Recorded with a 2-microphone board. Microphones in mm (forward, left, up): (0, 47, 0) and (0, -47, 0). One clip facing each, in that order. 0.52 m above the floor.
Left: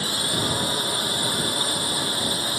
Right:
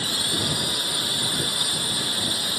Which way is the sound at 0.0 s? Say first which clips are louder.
Left 2 dB; 30° left (ahead or behind).